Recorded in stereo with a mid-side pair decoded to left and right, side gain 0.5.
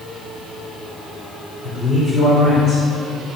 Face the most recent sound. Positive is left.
turn(degrees=55)